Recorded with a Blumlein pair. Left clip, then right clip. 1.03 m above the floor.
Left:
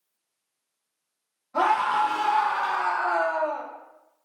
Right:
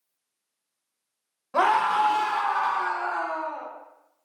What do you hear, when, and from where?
1.5 s a scream: 30° right, 1.0 m; by 3.7 s 35° left, 1.4 m